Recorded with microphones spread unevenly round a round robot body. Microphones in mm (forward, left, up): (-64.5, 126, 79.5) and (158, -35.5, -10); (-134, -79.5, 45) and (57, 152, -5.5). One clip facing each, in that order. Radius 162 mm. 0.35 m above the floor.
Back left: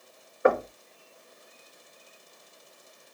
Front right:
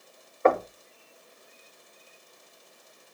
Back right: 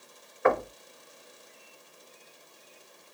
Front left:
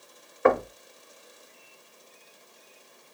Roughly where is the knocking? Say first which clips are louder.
Even, front left 3 dB; ahead left.